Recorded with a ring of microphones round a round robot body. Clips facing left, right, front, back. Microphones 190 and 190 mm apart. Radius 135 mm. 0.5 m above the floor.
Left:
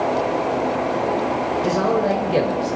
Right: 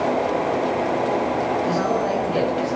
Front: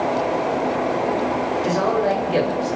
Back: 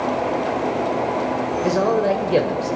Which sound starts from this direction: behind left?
A man speaking, at 1.6 s.